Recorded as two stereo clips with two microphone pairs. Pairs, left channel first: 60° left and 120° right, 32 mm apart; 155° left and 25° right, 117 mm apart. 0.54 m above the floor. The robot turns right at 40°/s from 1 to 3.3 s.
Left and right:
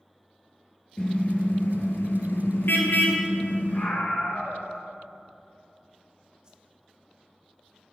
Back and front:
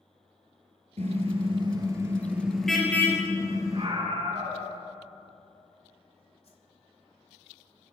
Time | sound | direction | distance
1.0 | a car horn | straight ahead | 5 m
3.7 | a scream | 20° left | 7.5 m
6.4 | a whoosh | straight behind | 2.5 m